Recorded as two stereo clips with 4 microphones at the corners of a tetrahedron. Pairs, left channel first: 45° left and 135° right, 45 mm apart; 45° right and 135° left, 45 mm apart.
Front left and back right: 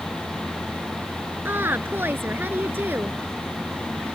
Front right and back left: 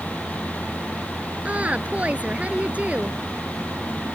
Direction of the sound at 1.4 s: 170° right.